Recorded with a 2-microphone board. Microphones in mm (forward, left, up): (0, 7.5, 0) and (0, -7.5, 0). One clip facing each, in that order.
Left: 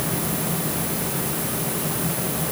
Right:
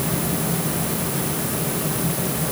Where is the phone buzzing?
I don't hear a phone buzzing.